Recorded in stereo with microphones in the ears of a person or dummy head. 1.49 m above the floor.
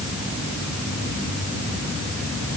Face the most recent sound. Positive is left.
No sound to turn to.